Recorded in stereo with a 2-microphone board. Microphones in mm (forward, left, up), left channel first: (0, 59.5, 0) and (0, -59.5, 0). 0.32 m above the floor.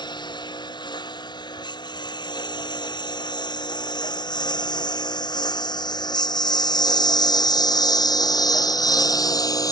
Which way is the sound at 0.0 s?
40° left (ahead or behind).